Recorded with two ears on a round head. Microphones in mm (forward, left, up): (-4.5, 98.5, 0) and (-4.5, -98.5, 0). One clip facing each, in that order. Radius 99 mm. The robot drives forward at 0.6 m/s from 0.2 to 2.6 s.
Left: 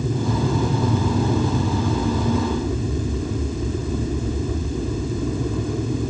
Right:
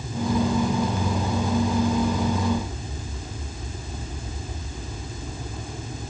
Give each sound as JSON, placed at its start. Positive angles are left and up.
{"t": 0.0, "sound": "an aircraft", "side_deg": 60}